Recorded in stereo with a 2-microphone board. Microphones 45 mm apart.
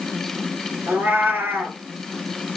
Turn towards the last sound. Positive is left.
turn(degrees=-50)  # may be behind; listen again after turning